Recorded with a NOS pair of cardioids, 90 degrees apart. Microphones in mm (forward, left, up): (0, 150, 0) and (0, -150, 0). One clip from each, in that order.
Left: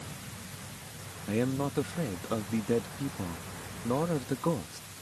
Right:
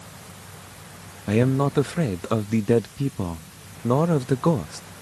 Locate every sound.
1.3 s a man speaking: 50° right